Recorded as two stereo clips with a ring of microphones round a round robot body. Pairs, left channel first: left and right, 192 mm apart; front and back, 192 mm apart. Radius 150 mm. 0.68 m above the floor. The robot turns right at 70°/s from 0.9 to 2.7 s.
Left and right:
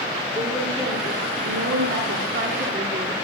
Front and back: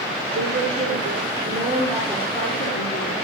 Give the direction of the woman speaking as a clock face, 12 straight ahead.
5 o'clock.